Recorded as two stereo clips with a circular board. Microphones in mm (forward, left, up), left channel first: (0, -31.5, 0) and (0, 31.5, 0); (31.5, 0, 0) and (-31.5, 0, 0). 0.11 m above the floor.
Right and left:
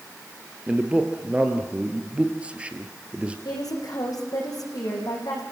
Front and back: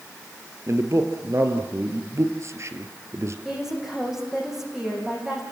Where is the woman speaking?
95° right, 7 m.